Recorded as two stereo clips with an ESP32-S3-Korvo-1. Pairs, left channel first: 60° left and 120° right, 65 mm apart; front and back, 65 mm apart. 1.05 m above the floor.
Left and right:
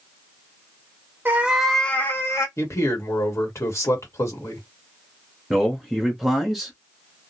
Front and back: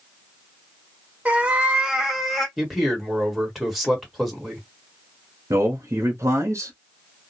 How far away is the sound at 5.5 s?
About 0.8 m.